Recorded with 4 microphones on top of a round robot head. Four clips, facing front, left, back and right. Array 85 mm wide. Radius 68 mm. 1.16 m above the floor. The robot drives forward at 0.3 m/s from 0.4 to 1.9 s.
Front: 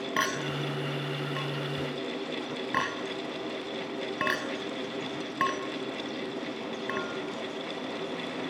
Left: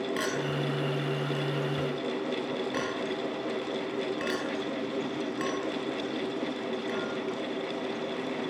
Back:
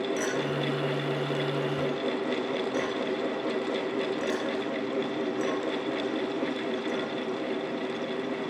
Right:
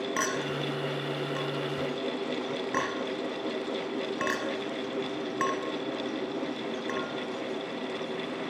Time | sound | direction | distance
0.2 | a clink | 30° right | 5 m